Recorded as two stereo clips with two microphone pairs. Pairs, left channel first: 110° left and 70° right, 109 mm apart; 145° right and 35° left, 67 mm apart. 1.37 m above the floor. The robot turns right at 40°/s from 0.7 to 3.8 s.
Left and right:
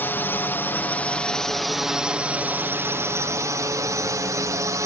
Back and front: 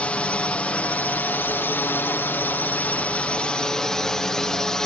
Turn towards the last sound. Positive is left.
turn(degrees=-75)